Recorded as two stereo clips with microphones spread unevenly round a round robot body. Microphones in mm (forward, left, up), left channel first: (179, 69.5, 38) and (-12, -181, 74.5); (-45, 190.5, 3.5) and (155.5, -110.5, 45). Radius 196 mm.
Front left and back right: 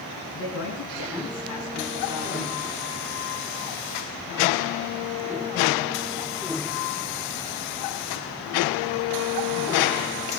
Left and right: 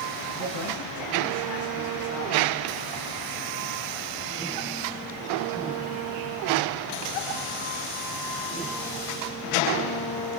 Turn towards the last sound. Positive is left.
turn(degrees=90)